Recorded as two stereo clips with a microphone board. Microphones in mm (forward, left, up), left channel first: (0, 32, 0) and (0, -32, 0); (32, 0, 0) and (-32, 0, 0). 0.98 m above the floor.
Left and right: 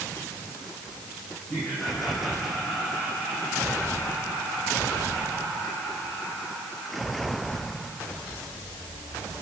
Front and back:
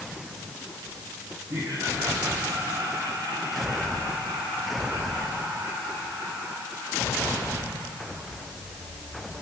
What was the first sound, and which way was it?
Laughter, 170° left.